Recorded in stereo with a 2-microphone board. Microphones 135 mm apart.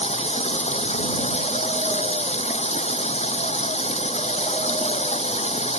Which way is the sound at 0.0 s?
50° left (ahead or behind).